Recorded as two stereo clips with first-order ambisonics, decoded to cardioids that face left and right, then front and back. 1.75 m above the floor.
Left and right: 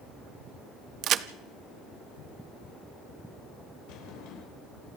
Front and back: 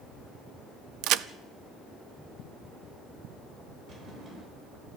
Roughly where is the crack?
Behind right.